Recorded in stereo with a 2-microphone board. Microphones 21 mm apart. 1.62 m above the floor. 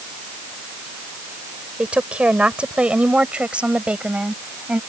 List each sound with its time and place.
1.8 s a woman speaking: 90° right; by 4.8 s 75° right (ahead or behind)